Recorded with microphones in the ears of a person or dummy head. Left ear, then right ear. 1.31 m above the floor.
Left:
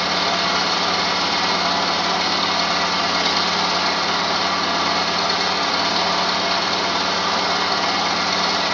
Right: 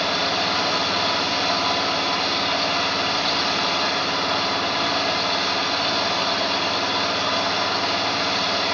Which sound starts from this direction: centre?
An engine running, at 0.0 s.